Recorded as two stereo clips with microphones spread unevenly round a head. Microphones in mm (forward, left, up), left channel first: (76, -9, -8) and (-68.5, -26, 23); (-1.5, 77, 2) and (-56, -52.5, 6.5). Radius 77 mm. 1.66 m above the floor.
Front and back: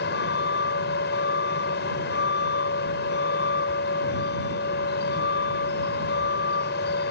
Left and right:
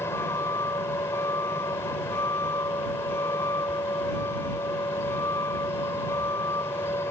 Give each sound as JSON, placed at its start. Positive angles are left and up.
{"t": 0.0, "sound": "a vehicle", "azimuth_deg": -10}